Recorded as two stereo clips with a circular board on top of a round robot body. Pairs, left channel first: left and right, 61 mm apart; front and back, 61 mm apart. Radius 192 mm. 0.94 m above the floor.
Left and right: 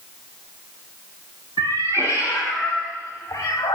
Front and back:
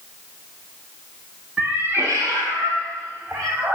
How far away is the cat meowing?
About 1.0 m.